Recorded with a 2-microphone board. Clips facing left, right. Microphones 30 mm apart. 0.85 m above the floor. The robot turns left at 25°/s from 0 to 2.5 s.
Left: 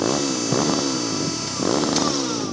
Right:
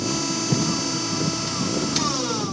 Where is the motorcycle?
115° left; by 2.5 s 50° left.